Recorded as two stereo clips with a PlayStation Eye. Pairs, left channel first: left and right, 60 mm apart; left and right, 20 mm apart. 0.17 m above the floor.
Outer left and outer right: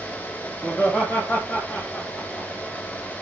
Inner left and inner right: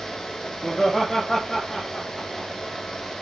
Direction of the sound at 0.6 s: 25° left (ahead or behind).